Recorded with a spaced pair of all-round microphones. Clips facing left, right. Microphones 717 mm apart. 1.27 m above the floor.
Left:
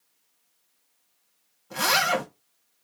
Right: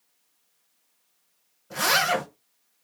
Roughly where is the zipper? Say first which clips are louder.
Even; right.